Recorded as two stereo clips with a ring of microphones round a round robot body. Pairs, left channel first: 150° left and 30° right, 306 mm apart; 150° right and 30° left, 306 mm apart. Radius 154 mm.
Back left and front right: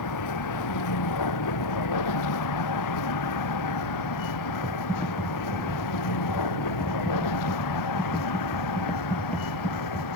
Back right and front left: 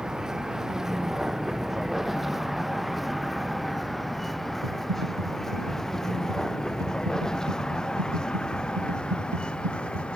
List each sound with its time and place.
0.0 s a vehicle: 120° left; by 10.2 s 125° left
4.6 s typing on a keyboard: 65° left